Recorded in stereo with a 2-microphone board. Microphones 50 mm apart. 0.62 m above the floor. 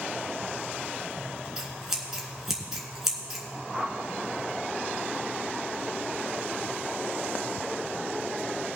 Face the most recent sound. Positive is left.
turn(degrees=15)  # may be behind; listen again after turning